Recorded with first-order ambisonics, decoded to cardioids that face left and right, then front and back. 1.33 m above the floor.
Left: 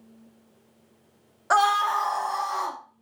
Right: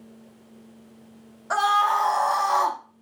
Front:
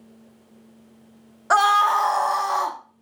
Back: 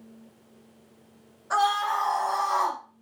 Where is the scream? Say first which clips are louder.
Even, front 7 dB; 20° left, 0.6 m; by 2.8 s 65° right, 0.7 m.